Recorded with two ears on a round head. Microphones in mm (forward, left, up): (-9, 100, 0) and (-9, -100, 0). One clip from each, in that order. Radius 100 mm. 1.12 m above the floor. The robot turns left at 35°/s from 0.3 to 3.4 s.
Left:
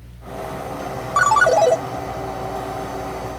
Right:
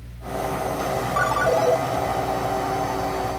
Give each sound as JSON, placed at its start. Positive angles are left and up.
{"t": 1.2, "sound": "a ringtone", "side_deg": 40, "distance_m": 0.5}